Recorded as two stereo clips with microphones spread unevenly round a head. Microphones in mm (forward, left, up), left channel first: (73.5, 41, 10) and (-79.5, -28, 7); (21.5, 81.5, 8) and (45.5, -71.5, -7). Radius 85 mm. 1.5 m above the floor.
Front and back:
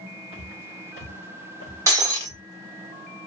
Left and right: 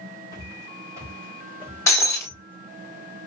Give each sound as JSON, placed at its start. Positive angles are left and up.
{"t": 0.3, "sound": "footsteps", "azimuth_deg": -20, "distance_m": 1.9}
{"t": 1.9, "sound": "breaking glass", "azimuth_deg": 145, "distance_m": 1.2}